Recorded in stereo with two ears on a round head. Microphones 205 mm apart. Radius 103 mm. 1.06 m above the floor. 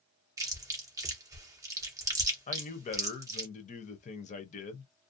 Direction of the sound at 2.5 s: 30° left (ahead or behind).